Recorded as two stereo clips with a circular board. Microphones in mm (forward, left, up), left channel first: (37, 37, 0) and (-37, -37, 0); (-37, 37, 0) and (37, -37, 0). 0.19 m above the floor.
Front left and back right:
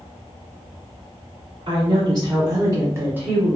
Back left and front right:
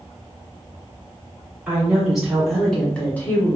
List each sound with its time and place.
1.7 s a woman speaking: 120° right, 1.3 m; by 3.6 s 160° left, 1.0 m